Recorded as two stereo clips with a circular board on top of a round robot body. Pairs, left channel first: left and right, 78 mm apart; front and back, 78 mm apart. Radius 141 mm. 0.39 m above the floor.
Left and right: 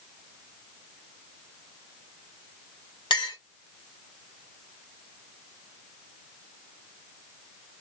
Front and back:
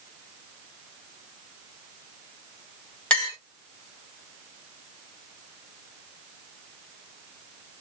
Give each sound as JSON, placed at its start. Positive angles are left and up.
{"t": 3.1, "sound": "a clink", "azimuth_deg": 75, "distance_m": 2.5}